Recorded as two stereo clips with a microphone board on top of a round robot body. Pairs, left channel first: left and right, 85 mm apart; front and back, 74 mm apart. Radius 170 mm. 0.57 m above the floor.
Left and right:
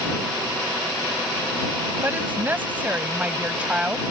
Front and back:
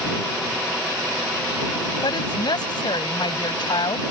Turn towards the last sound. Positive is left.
turn(degrees=-10)